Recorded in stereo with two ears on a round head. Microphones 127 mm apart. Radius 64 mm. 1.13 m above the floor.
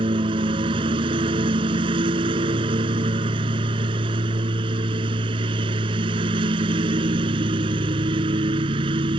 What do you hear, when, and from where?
0.0 s a lawn mower: 35° right (ahead or behind)